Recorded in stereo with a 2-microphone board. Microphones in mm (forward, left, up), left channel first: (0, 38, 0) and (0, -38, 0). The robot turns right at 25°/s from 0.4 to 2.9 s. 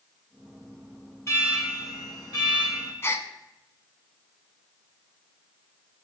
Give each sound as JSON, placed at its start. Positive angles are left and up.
{"t": 1.3, "sound": "an alarm", "azimuth_deg": 40, "distance_m": 4.5}
{"t": 3.0, "sound": "a gasp", "side_deg": 35, "distance_m": 0.8}